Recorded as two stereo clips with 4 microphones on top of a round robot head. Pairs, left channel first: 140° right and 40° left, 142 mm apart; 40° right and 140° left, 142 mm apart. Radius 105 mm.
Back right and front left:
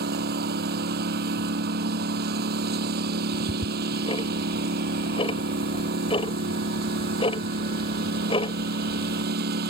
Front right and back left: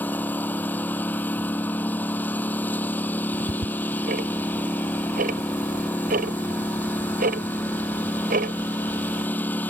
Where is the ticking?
165° left.